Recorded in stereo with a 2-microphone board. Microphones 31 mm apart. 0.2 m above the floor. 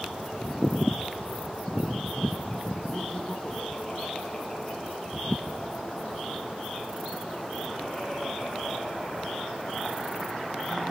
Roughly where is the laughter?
Left.